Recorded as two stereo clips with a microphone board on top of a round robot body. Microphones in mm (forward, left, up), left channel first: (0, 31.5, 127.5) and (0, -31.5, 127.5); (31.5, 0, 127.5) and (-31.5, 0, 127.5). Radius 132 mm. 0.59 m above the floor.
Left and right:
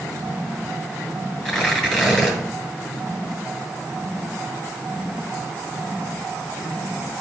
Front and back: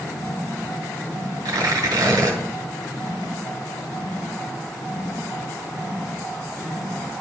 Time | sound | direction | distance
1.4 | tearing paper | 170° left | 2.5 m